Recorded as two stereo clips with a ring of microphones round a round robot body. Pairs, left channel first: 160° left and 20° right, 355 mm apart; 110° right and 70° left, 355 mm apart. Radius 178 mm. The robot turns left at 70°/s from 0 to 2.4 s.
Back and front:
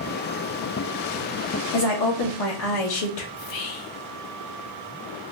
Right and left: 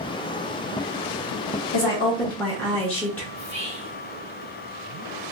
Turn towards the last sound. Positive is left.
turn(degrees=140)